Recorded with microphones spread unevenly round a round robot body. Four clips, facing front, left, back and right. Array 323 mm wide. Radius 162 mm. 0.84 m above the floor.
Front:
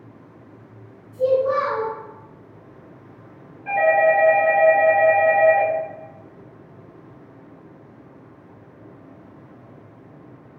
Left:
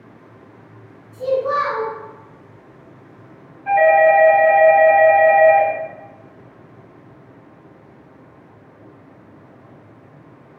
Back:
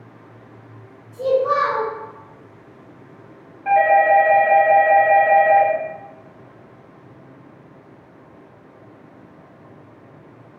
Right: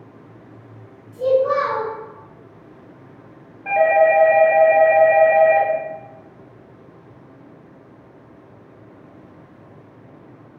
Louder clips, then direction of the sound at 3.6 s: Left 2 dB, back 3 dB; 125° right.